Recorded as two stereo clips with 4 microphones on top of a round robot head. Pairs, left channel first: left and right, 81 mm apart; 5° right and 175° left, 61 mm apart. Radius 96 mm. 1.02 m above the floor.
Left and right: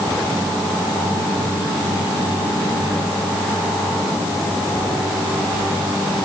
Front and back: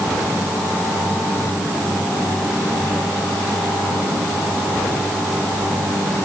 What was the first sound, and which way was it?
Only background noise.